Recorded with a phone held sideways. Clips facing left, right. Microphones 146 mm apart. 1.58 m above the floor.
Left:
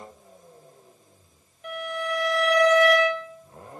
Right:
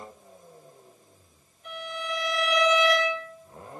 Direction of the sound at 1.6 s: 85° left.